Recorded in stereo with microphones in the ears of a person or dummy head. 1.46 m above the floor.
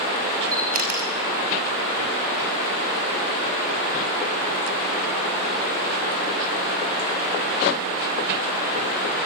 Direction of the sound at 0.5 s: 45° right (ahead or behind).